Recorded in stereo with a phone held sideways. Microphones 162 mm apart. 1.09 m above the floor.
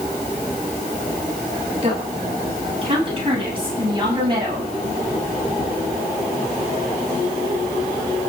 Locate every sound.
1.8 s a woman speaking: 40° right (ahead or behind), 8.5 m; by 4.7 s 30° right (ahead or behind), 7.5 m